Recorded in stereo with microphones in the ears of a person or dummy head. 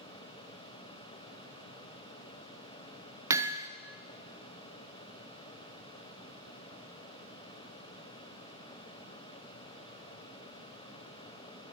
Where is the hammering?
15° right (ahead or behind), 0.5 m.